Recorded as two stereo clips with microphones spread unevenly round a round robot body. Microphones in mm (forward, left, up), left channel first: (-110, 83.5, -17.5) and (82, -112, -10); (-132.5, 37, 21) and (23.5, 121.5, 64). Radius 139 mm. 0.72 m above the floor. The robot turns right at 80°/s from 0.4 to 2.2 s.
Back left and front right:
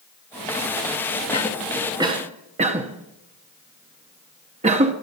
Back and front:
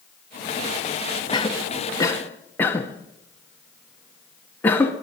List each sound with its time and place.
1.3 s a cough: 170° right, 1.0 m; by 4.9 s 100° right, 1.0 m